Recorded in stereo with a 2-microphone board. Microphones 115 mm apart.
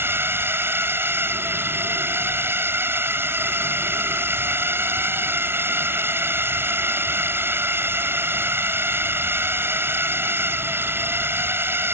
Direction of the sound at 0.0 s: 20° right (ahead or behind).